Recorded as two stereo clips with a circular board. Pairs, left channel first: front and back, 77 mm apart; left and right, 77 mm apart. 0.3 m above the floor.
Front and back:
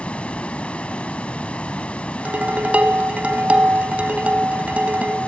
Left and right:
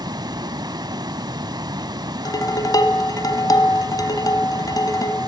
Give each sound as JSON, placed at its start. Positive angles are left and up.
{"t": 0.0, "sound": "running water", "azimuth_deg": -70, "distance_m": 0.8}
{"t": 2.2, "sound": "dishes clattering", "azimuth_deg": 110, "distance_m": 1.5}